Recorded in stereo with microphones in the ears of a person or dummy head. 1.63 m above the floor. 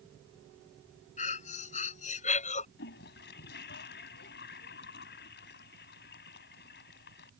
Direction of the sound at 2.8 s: 65° left (ahead or behind).